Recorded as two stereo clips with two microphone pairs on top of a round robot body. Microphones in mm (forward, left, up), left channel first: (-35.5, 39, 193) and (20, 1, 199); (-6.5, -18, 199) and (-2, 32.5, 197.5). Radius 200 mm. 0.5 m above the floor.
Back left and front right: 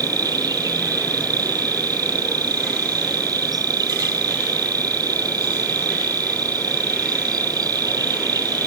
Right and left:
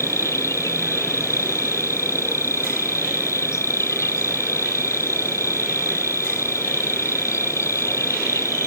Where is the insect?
65° right.